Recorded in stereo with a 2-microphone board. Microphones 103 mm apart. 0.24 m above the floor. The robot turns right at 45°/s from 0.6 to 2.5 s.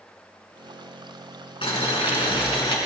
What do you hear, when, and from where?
1.6 s boiling: 75° left, 3 m; by 2.8 s 115° left, 3 m